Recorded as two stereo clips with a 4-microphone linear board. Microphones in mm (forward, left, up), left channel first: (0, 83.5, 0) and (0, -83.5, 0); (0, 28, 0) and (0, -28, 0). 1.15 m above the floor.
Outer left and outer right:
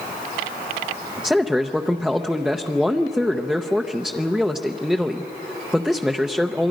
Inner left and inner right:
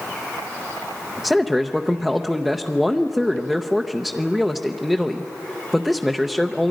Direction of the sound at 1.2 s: 5° right (ahead or behind).